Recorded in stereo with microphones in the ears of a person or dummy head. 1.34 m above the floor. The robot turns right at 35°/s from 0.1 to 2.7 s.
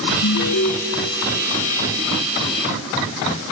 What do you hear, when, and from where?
0.2 s an alarm: 70° left (ahead or behind), 1.9 m; by 0.7 s 55° left (ahead or behind), 1.9 m